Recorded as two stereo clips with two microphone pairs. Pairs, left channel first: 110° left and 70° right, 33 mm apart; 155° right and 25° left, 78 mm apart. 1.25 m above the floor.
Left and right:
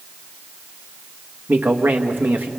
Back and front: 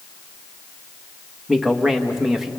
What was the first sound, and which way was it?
A man speaking, 60° right.